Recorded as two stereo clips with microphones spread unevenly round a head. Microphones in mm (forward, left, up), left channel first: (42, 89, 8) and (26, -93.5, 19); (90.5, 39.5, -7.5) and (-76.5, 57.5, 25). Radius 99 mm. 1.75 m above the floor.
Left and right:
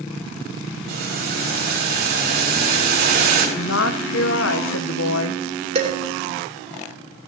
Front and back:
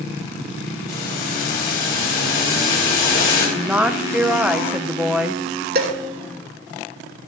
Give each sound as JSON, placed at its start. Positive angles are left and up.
{"t": 0.9, "sound": "boiling", "azimuth_deg": -60, "distance_m": 6.0}
{"t": 3.6, "sound": "a woman speaking", "azimuth_deg": 95, "distance_m": 1.1}
{"t": 5.8, "sound": "dishes clattering", "azimuth_deg": -155, "distance_m": 3.0}